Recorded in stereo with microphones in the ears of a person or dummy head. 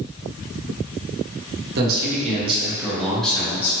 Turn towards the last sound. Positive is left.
turn(degrees=15)  # may be behind; listen again after turning